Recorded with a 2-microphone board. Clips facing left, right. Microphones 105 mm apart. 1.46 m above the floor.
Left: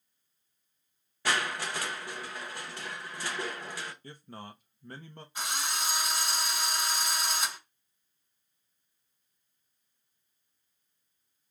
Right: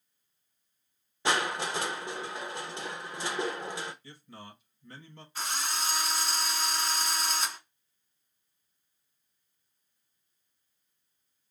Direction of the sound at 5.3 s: 15° left (ahead or behind).